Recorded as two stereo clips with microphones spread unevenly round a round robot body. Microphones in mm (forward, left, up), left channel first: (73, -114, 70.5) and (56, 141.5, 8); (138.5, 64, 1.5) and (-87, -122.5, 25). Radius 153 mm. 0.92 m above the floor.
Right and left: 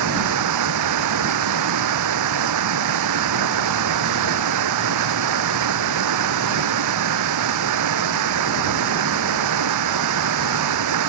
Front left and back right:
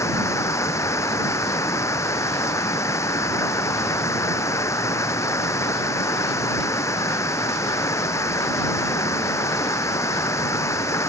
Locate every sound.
0.0 s running water: 120° left